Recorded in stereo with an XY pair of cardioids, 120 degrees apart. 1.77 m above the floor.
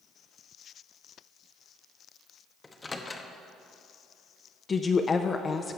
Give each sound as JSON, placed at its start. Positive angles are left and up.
{"t": 2.6, "sound": "a microwave", "azimuth_deg": 20, "distance_m": 1.0}
{"t": 4.7, "sound": "a woman speaking", "azimuth_deg": 30, "distance_m": 0.6}